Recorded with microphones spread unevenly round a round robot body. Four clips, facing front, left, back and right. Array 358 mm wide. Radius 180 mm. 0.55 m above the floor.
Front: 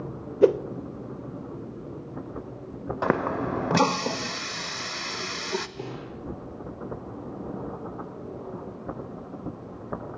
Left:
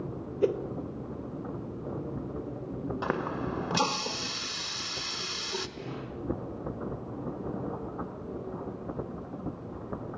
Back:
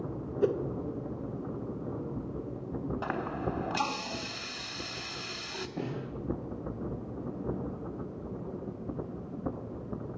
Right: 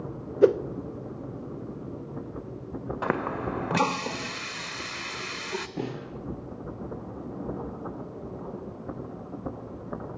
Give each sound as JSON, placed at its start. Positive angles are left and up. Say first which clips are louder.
{"t": 0.4, "sound": "a whoosh", "louder": "right 8 dB, front 9 dB", "azimuth_deg": -35, "distance_m": 0.8}
{"t": 3.0, "sound": "a running tap", "louder": "right 4 dB, front 12 dB", "azimuth_deg": -15, "distance_m": 1.5}
{"t": 5.8, "sound": "a snare drum", "louder": "right 6 dB, even", "azimuth_deg": -110, "distance_m": 9.0}